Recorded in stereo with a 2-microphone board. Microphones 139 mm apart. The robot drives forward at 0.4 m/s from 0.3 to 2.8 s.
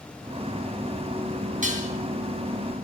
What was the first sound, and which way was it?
Dishes clattering, 70° right (ahead or behind).